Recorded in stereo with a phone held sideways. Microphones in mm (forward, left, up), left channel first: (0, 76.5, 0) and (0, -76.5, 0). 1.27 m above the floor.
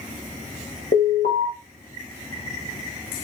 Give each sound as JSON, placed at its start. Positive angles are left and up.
{"t": 0.9, "sound": "an alarm", "side_deg": 75, "distance_m": 6.5}